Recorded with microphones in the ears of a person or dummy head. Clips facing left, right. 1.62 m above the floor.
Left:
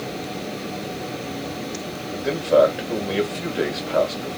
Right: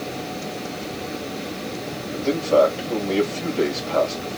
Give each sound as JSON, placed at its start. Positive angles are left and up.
{"t": 2.1, "sound": "a man speaking", "side_deg": 20, "distance_m": 1.7}